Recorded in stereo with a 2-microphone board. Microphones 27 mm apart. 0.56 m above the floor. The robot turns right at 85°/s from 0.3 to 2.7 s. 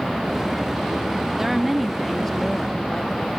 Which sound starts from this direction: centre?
A woman speaking, at 1.4 s.